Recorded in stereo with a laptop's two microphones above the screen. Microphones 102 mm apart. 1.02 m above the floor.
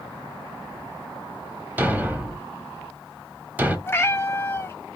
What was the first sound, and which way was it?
A thud, 15° right (ahead or behind).